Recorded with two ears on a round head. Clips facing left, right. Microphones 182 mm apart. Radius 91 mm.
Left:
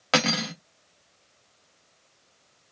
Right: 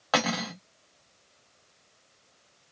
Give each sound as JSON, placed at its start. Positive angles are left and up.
{"t": 0.1, "sound": "cutlery clinking", "side_deg": 30, "distance_m": 0.9}